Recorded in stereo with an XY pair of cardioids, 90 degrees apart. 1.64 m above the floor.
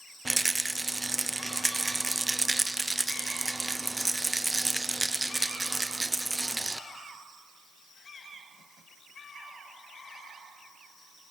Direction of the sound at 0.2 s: 20° right.